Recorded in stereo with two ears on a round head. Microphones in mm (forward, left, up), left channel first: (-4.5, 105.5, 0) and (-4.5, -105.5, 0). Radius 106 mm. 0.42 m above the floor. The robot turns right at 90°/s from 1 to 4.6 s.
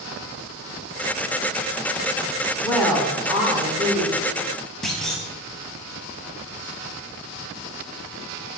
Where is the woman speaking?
10° left (ahead or behind), 0.8 m; by 4.2 s 20° right (ahead or behind), 0.8 m.